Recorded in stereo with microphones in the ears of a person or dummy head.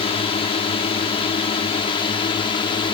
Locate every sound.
0.0 s a drone: 30° left (ahead or behind); by 3.0 s 25° left (ahead or behind)